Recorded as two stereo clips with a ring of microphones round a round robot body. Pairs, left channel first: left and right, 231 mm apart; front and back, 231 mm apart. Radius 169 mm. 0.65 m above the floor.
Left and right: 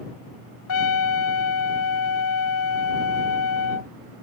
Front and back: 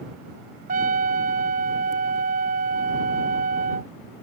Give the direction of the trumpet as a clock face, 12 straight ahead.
8 o'clock.